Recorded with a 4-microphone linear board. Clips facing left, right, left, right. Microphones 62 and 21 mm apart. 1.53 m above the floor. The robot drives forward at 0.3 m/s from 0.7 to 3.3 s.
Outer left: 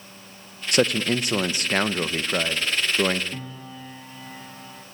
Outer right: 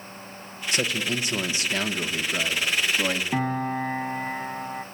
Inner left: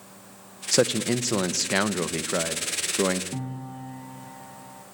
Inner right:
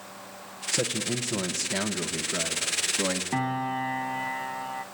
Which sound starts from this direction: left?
A man speaking, at 0.7 s.